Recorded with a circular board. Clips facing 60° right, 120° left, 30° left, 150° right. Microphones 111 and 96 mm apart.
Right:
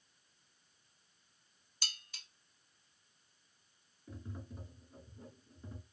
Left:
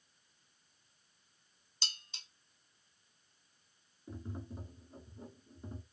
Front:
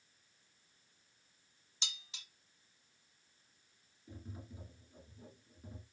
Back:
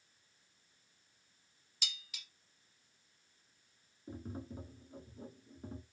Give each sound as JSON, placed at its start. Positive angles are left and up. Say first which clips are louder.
{"t": 1.8, "sound": "dishes clattering", "louder": "even, back 1 dB", "azimuth_deg": 75, "distance_m": 1.0}
{"t": 4.1, "sound": "tapping", "louder": "left 4 dB, back 7 dB", "azimuth_deg": 180, "distance_m": 1.5}